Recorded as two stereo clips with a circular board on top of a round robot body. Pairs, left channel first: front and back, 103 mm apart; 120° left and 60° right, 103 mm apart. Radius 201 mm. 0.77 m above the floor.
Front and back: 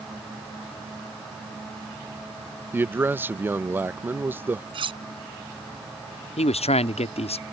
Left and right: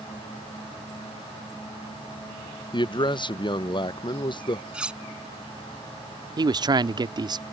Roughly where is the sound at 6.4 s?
Ahead.